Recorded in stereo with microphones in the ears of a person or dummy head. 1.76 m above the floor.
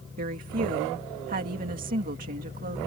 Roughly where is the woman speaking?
Right.